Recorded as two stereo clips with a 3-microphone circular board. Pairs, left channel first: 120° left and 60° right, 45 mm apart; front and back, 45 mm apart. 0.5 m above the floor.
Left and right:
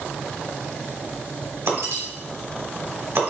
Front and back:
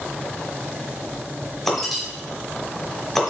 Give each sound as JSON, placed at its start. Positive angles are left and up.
{"t": 1.7, "sound": "breaking glass", "azimuth_deg": -85, "distance_m": 1.2}